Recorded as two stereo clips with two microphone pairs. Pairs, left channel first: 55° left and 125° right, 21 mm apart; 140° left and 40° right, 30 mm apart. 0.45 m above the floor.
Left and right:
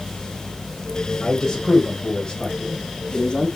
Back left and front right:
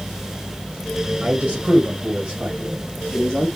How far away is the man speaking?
About 2.0 m.